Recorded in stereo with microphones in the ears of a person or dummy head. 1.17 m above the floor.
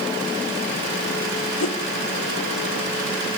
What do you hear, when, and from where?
1.6 s a whoosh: 80° left, 1.8 m